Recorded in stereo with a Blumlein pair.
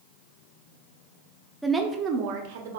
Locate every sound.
1.6 s a woman speaking: straight ahead, 0.5 m; by 2.8 s 60° right, 0.7 m